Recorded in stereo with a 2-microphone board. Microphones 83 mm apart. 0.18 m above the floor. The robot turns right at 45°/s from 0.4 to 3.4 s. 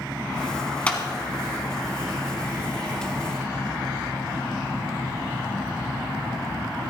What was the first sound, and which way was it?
A clap, 15° left (ahead or behind).